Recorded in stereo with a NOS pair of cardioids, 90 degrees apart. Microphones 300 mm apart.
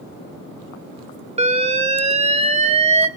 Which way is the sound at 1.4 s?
20° right.